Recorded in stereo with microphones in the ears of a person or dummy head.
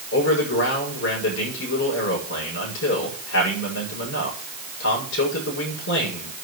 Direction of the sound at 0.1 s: 70° left (ahead or behind).